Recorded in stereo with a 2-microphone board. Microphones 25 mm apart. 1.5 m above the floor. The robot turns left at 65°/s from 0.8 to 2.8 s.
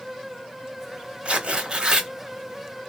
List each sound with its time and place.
1.2 s tearing paper: 85° right, 1.2 m; by 2.1 s 140° right, 1.2 m